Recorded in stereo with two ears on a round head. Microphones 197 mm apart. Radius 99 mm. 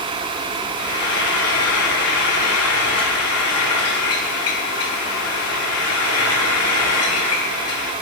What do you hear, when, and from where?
0.8 s frying: 75° left (ahead or behind), 5.5 m